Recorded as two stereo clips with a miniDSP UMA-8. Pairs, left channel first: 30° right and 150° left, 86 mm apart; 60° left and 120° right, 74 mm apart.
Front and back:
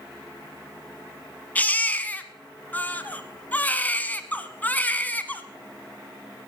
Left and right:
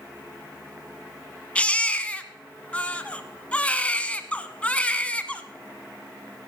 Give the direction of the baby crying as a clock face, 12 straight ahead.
12 o'clock.